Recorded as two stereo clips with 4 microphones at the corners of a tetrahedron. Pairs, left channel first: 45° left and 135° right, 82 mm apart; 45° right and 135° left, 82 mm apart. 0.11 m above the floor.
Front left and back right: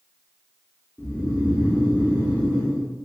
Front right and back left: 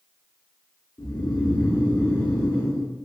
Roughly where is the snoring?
Right.